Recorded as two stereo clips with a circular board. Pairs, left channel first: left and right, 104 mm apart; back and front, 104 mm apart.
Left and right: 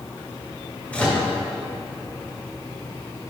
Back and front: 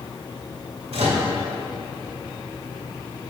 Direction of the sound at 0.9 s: 15° left.